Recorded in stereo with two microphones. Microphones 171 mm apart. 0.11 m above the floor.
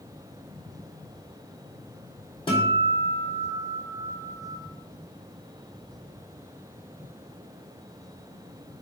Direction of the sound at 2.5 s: 30° left (ahead or behind).